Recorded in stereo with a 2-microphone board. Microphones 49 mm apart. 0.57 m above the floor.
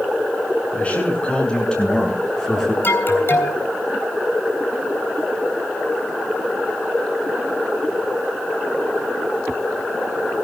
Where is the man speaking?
25° left (ahead or behind), 6.5 m; by 2.7 s 5° left (ahead or behind), 7 m.